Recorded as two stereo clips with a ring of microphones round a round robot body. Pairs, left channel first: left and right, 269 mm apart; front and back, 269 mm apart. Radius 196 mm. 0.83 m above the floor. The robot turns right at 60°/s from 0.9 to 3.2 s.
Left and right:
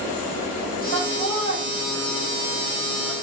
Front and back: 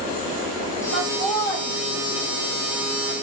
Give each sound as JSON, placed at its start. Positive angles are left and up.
{"t": 0.9, "sound": "laughter", "azimuth_deg": -110, "distance_m": 1.6}